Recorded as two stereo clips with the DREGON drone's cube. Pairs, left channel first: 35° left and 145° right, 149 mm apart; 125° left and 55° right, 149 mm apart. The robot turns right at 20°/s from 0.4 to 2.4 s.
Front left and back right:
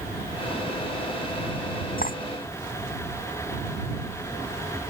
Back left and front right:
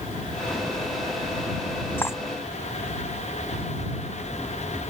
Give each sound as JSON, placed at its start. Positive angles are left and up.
{"t": 2.0, "sound": "cutlery clinking", "azimuth_deg": 50}